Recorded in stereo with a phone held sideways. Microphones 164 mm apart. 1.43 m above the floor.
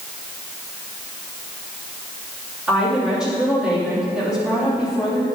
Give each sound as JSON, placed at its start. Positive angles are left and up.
{"t": 2.7, "sound": "a woman speaking", "side_deg": -5, "distance_m": 3.0}